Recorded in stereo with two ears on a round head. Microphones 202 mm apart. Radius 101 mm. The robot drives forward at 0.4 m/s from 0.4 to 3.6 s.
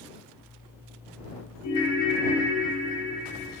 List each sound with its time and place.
1.6 s a ringtone: 75° left (ahead or behind), 1.8 m